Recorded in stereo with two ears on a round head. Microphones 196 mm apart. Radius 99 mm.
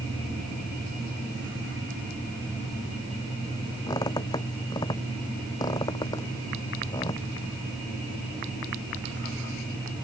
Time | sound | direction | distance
3.9 | a squeak | 20° left (ahead or behind) | ?